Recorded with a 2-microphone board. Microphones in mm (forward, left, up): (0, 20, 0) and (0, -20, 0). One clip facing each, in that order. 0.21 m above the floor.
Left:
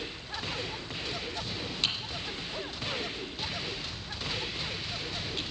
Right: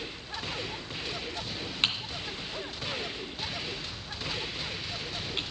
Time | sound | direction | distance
1.8 | typing on a keyboard | 35° right (ahead or behind) | 2.5 m